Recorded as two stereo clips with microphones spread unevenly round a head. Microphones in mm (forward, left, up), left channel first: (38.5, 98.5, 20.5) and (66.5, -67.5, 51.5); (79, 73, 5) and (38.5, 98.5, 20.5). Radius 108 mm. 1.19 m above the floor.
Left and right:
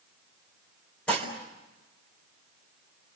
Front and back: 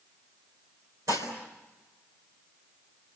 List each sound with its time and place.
1.1 s dishes clattering: 175° right, 3.5 m